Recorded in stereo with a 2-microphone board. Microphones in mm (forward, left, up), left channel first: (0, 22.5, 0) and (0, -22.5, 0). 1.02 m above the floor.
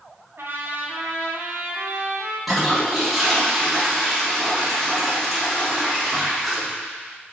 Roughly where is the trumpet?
Right.